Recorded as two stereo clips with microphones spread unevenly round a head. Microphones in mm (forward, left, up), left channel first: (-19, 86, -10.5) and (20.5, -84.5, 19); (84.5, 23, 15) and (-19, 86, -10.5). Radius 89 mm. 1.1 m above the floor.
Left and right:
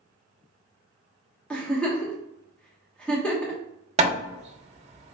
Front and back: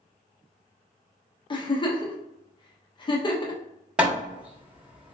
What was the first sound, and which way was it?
A giggle, 20° left.